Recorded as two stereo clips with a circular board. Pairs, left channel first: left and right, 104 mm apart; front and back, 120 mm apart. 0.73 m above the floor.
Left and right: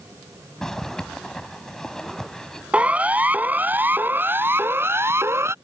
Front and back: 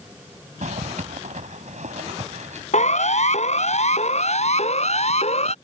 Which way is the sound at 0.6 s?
175° left.